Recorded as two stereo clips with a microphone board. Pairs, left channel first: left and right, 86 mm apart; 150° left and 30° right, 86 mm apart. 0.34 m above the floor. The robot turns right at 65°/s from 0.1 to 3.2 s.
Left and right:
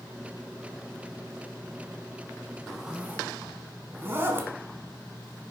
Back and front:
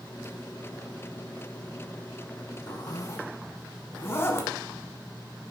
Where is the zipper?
175° left, 1.0 m; by 4.5 s 150° right, 1.0 m.